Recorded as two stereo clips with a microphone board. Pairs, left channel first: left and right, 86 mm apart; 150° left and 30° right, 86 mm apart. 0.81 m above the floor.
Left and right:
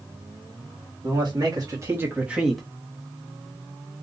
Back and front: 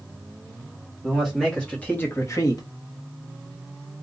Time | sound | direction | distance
1.0 | a man speaking | 120° right | 1.3 m